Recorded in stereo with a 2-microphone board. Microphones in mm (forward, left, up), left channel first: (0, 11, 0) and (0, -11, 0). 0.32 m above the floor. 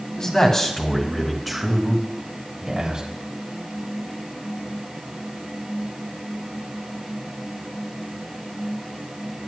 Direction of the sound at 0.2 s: 30° left (ahead or behind).